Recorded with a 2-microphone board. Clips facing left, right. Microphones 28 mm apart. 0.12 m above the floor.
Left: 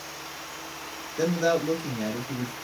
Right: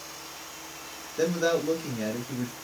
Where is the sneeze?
I don't hear a sneeze.